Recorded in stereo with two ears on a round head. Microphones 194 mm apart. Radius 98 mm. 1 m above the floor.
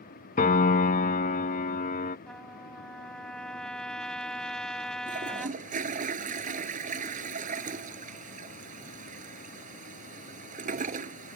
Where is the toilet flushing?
40° right (ahead or behind).